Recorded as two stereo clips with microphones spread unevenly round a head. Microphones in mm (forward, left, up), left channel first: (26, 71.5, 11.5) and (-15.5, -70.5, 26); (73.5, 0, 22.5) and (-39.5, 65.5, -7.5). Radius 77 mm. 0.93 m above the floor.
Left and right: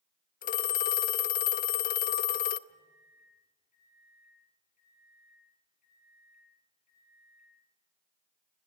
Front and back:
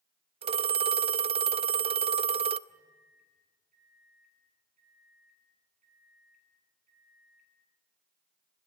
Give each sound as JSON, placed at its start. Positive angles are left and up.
{"t": 0.4, "sound": "a phone ringing", "azimuth_deg": 110, "distance_m": 0.6}
{"t": 2.7, "sound": "a microwave", "azimuth_deg": 120, "distance_m": 9.5}